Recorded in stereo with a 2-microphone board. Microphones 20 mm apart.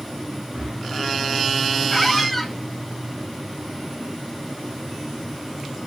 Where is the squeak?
5° left (ahead or behind), 0.5 m.